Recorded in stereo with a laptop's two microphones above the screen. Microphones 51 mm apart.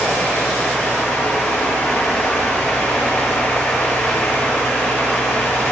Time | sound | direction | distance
0.0 | a fan | 40° left (ahead or behind) | 6.5 m